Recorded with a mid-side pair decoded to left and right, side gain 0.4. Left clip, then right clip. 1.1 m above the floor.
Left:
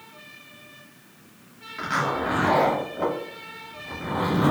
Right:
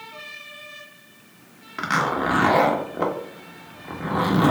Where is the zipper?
50° right, 1.1 m.